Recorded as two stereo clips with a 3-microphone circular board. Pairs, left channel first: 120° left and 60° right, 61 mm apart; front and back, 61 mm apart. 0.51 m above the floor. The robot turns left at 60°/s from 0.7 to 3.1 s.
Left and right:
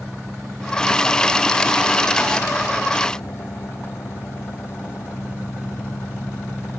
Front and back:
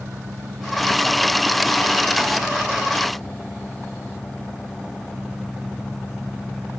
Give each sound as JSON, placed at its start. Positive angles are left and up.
{"t": 0.0, "sound": "an engine running", "azimuth_deg": -145}